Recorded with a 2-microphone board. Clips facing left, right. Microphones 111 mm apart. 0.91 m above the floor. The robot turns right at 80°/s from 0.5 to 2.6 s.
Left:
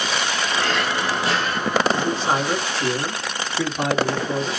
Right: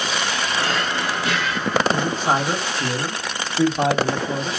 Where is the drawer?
20° right, 1.1 m; by 1.8 s 80° left, 1.1 m.